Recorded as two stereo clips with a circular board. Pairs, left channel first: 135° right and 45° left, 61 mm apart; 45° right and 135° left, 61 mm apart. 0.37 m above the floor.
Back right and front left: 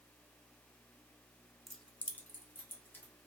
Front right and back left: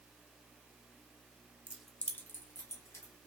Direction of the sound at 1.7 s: 125° left.